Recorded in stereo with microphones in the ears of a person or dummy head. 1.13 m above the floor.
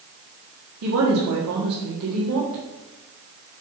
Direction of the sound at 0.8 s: 85° right.